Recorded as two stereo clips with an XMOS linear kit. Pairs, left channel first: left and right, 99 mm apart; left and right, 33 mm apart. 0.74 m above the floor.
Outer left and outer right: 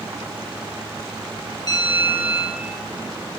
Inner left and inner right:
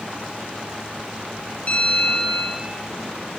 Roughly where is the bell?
Left.